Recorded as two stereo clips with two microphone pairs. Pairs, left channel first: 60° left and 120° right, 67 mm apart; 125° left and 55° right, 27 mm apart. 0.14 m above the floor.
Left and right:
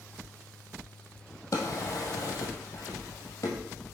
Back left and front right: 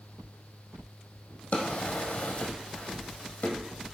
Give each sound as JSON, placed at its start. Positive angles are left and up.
{"t": 1.5, "sound": "a drawer", "azimuth_deg": 100, "distance_m": 1.7}